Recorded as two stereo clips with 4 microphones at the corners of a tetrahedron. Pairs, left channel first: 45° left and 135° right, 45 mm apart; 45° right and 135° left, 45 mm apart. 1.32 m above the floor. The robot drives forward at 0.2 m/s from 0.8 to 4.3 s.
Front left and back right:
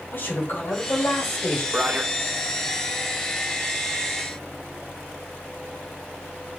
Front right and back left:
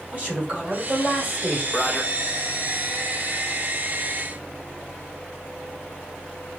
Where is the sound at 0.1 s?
70° left, 3 m.